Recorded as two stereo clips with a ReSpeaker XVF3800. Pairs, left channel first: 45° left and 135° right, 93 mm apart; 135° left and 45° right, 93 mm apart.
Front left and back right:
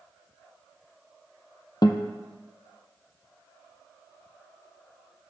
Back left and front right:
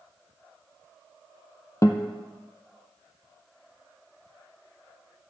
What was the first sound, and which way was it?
A guitar, 80° left.